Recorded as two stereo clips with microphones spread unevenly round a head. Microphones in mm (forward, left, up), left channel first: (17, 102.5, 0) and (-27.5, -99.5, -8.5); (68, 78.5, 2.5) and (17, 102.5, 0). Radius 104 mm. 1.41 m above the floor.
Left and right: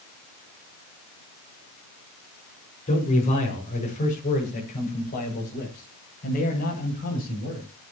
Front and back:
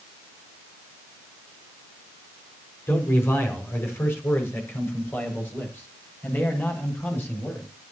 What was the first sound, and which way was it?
A man speaking, 20° left.